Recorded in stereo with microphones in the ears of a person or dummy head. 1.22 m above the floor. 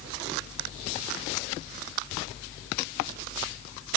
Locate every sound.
Only background noise.